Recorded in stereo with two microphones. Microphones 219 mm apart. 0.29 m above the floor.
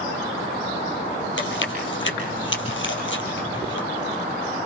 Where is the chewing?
65° left (ahead or behind), 3.5 m.